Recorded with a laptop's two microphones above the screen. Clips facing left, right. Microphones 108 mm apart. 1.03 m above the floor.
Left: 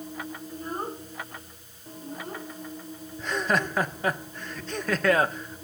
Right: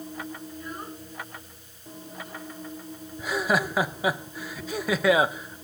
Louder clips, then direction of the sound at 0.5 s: Left 4 dB; 35° left (ahead or behind).